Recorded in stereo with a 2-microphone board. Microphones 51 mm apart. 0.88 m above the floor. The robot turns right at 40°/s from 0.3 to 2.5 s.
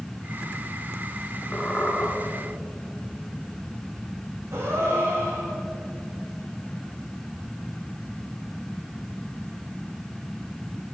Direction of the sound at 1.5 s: 15° left (ahead or behind).